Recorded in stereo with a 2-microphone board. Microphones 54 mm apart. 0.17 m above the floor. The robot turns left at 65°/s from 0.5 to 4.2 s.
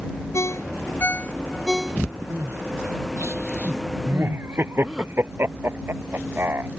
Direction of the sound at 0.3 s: 65° left (ahead or behind).